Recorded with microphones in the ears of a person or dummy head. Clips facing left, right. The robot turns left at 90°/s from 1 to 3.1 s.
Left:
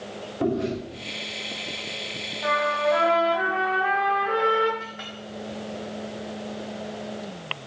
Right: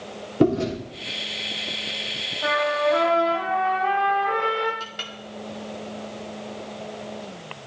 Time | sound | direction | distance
0.4 | chewing | 60° right (ahead or behind) | 5 m
2.4 | a trumpet | 130° right | 4.5 m
4.8 | a clink | 50° right (ahead or behind) | 2.0 m